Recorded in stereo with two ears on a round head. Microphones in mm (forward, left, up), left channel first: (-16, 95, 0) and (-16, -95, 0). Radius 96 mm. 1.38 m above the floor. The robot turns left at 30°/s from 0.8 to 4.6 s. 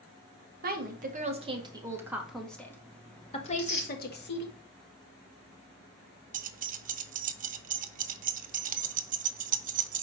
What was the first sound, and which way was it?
A woman speaking, 135° right.